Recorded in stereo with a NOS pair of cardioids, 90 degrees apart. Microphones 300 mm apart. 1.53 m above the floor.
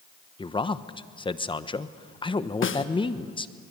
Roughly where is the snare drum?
Ahead left.